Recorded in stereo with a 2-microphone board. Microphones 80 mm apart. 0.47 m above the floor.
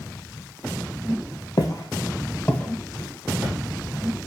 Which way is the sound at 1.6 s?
55° left (ahead or behind).